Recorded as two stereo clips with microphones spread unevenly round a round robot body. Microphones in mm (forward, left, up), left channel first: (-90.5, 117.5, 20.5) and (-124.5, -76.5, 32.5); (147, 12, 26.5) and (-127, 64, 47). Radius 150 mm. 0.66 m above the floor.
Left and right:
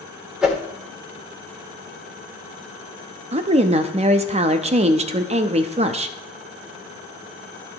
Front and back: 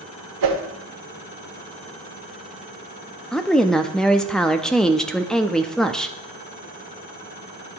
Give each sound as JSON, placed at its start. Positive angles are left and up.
{"t": 0.4, "sound": "a whoosh", "azimuth_deg": 175, "distance_m": 1.7}
{"t": 3.3, "sound": "a woman speaking", "azimuth_deg": -85, "distance_m": 0.5}